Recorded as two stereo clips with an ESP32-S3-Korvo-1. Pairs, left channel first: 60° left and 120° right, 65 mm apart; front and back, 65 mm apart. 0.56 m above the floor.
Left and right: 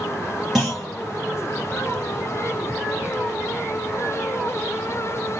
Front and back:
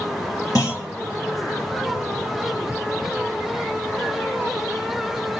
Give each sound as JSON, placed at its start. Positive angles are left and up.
{"t": 0.6, "sound": "a clunk", "azimuth_deg": -35, "distance_m": 3.0}